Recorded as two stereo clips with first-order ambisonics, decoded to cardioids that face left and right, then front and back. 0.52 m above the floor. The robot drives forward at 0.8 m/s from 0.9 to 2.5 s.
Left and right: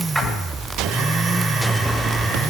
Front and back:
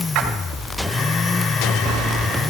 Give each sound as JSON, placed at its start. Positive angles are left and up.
{"t": 0.1, "sound": "a splash", "azimuth_deg": 175, "distance_m": 2.5}